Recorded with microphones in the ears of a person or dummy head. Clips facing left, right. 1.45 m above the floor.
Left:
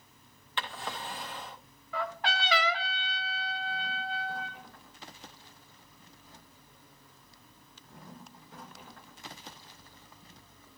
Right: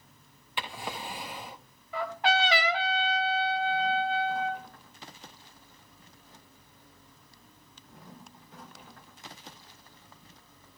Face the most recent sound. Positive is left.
turn(degrees=-20)  # may be behind; listen again after turning